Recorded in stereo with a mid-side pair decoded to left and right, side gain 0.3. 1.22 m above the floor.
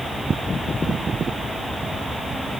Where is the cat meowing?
No cat meowing in this recording.